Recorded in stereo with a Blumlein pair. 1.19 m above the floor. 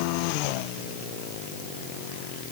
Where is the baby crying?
No baby crying in this recording.